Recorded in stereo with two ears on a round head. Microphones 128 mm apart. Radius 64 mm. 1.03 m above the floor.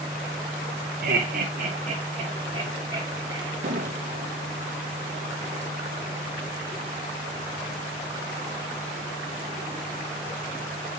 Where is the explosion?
55° right (ahead or behind), 1.1 m.